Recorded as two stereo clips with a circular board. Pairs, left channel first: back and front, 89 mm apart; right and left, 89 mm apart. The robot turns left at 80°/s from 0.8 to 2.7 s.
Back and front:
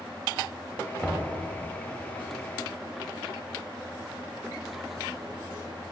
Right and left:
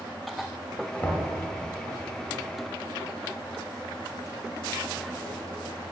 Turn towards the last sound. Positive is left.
turn(degrees=135)